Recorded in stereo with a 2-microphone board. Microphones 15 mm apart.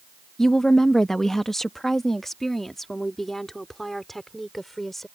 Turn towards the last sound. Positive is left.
turn(degrees=15)  # may be behind; listen again after turning